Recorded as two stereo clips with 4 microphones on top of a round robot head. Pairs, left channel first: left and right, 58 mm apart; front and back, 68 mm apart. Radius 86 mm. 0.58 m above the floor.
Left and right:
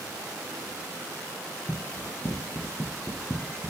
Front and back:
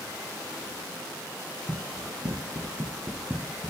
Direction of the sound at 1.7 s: 150° left.